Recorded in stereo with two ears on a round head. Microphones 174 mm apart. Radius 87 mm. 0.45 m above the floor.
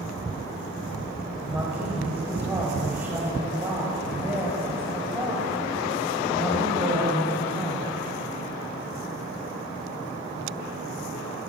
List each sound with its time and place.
1.4 s a woman speaking: 10° right (ahead or behind), 2.5 m